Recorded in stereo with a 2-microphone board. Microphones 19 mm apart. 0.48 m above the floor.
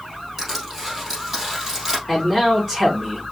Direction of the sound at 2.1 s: 10° right (ahead or behind).